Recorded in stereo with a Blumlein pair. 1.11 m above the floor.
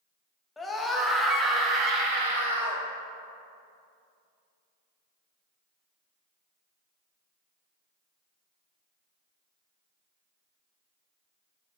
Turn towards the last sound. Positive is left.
turn(degrees=-65)